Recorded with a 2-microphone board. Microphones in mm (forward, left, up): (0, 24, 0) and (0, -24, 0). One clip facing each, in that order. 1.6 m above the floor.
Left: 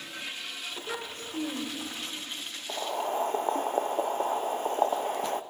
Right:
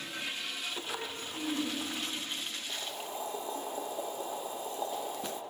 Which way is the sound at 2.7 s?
50° left (ahead or behind).